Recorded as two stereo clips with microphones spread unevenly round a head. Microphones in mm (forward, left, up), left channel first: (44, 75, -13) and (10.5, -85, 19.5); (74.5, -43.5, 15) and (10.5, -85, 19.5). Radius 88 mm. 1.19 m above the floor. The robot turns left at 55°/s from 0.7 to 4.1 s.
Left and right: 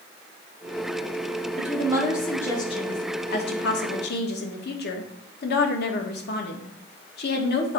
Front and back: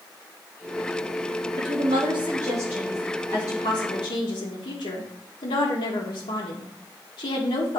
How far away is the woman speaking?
About 1.4 m.